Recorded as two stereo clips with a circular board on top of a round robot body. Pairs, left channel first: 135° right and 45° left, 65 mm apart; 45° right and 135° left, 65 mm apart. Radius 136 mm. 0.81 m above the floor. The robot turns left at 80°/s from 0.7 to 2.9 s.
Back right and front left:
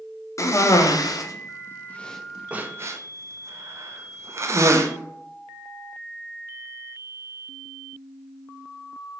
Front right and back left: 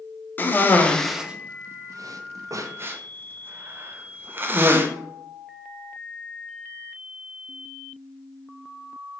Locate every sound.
0.4 s a cough: 100° right, 0.8 m; by 4.9 s 80° left, 0.8 m